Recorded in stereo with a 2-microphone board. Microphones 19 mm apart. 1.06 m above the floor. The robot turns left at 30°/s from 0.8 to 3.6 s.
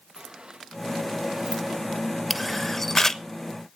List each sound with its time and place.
0.2 s a sliding door: 45° right (ahead or behind), 1.0 m; by 2.8 s 35° right (ahead or behind), 1.0 m
2.3 s a camera shutter: centre (ahead or behind), 1.0 m; by 3.2 s 25° left (ahead or behind), 1.0 m